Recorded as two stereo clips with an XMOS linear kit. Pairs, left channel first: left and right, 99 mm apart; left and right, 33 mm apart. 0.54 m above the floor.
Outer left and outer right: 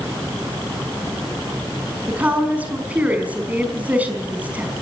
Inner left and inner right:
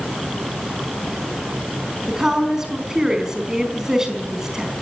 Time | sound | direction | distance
2.1 | a woman speaking | 15° right (ahead or behind) | 5 m